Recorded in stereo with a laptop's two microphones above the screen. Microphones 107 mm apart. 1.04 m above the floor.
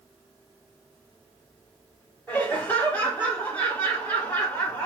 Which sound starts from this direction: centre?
Laughter, at 2.3 s.